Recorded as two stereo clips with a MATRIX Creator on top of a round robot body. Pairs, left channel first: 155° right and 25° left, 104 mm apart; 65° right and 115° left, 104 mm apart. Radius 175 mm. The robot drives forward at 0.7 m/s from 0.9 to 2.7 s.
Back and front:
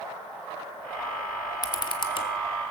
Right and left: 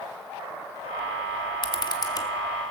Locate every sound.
1.6 s a camera shutter: 105° right, 1.4 m; by 2.3 s 125° right, 1.6 m